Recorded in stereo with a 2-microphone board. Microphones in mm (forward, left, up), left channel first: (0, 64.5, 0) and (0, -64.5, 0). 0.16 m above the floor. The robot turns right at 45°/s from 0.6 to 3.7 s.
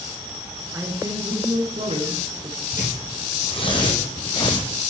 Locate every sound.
0.7 s a man speaking: 155° right, 2.5 m; by 2.6 s 70° right, 2.5 m
2.7 s tearing paper: 80° left, 3 m; by 4.7 s 40° left (ahead or behind), 3 m